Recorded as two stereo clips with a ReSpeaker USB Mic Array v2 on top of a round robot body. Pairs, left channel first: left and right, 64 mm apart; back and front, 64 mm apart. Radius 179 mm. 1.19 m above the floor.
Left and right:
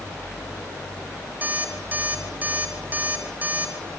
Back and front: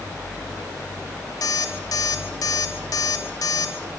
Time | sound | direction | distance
1.4 | an alarm clock | 155° right | 3 m